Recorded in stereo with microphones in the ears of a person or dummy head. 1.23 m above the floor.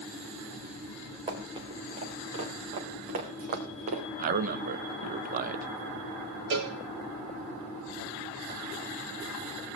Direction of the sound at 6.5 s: 60° right (ahead or behind).